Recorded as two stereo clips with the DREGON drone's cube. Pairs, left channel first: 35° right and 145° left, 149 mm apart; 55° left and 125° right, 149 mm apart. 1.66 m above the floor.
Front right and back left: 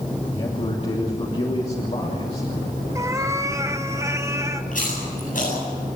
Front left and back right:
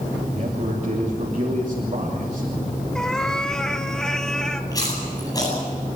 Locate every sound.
0.3 s a man speaking: 85° right, 3 m
3.0 s a cat meowing: 130° left, 1.0 m
4.7 s chewing: 10° right, 9 m